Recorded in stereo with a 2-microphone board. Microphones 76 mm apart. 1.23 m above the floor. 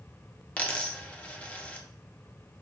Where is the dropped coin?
20° left (ahead or behind), 0.6 m.